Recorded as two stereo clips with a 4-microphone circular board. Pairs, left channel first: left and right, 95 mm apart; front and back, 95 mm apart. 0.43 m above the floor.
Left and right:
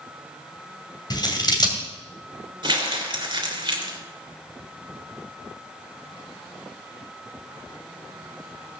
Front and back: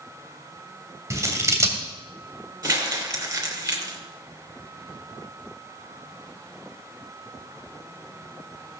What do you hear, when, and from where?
1.1 s scissors: 125° left, 2 m
2.6 s crumpling: 125° right, 3 m